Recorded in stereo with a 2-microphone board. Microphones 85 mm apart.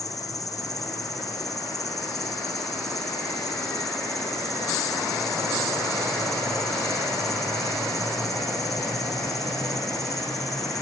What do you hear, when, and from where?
0.0 s an insect: 45° left (ahead or behind), 2.5 m